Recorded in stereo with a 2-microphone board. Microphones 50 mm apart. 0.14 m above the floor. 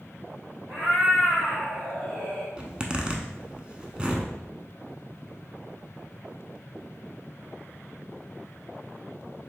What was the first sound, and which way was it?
A cat meowing, 30° right (ahead or behind).